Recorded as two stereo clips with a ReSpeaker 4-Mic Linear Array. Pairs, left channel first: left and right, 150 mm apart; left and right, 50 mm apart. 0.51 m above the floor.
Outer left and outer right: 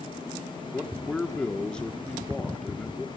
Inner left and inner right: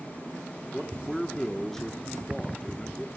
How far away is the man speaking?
About 1.0 m.